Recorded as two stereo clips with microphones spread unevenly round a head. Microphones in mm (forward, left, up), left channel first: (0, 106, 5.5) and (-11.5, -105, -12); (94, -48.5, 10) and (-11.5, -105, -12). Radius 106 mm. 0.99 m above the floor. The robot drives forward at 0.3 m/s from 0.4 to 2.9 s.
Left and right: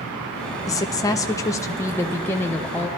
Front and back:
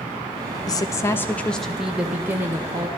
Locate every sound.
0.7 s a woman speaking: 25° left, 0.6 m; by 2.9 s 170° left, 0.7 m